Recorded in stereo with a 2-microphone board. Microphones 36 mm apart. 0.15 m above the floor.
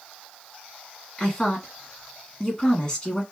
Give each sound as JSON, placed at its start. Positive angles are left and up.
{"t": 1.2, "sound": "a woman speaking", "side_deg": 20, "distance_m": 1.6}